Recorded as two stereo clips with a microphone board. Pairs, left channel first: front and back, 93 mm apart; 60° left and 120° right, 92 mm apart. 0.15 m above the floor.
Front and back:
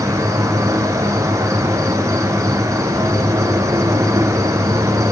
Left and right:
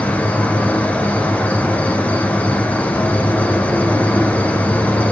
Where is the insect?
130° left, 1.6 m.